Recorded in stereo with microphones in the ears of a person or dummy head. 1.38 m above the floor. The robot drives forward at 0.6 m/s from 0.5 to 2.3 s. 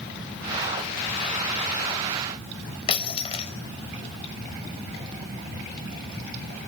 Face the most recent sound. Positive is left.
turn(degrees=35)  # may be behind; listen again after turning